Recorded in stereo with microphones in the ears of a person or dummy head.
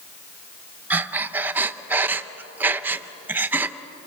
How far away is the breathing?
About 0.8 m.